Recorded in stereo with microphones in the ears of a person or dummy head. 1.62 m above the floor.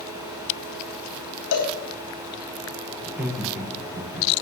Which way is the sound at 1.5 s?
80° left.